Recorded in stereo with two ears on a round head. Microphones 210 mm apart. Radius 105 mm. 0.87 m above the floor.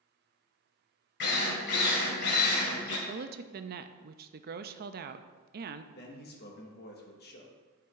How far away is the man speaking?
About 1.4 m.